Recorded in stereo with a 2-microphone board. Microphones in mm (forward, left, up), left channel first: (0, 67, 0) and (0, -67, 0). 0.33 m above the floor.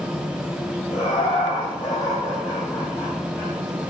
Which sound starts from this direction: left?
Laughter, at 0.9 s.